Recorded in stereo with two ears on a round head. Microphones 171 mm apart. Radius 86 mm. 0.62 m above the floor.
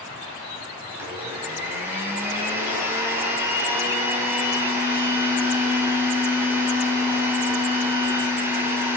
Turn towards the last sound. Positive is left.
turn(degrees=-10)  # may be behind; listen again after turning